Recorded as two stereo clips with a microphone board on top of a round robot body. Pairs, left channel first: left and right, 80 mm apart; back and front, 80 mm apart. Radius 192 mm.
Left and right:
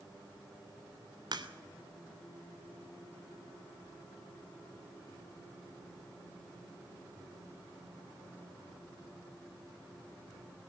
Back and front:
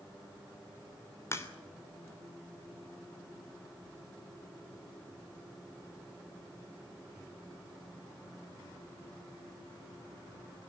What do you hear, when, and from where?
1.3 s a crack: 120° right, 3 m